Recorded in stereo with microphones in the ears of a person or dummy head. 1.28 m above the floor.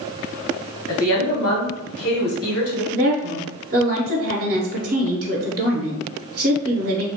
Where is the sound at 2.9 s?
50° right (ahead or behind), 0.6 m.